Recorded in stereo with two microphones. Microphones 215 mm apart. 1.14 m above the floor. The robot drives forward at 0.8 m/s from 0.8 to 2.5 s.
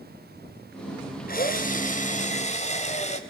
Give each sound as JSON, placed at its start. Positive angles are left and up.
{"t": 1.3, "sound": "a drill", "side_deg": 40, "distance_m": 3.0}